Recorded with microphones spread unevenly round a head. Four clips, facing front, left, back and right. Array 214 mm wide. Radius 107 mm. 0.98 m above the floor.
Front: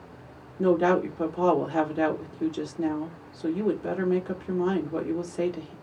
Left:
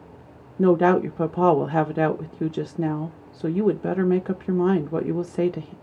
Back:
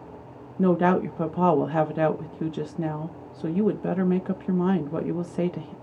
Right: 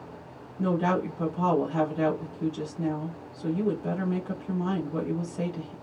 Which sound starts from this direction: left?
A woman speaking, at 0.6 s.